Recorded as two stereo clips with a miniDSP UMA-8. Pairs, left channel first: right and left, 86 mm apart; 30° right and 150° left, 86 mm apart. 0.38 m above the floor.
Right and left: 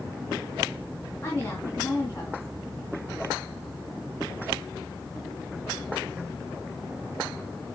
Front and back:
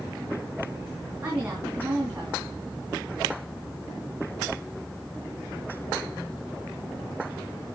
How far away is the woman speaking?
About 2.5 m.